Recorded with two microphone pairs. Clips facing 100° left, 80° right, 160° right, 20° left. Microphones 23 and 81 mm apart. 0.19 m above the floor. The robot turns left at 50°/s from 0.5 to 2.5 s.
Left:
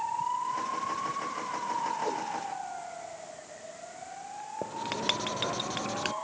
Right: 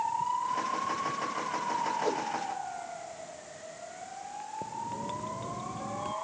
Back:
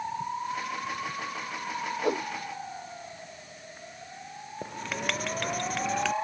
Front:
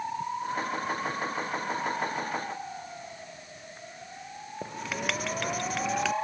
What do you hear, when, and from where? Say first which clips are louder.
2.0 s a whoosh: right 1 dB, back 4 dB; 150° right; by 2.2 s 160° right
4.6 s writing: left 7 dB, even; 110° left